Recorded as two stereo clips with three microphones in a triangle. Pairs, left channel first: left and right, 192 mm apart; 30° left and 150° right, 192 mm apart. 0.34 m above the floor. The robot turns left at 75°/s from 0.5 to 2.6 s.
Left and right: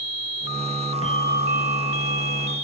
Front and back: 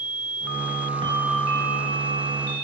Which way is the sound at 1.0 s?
145° left.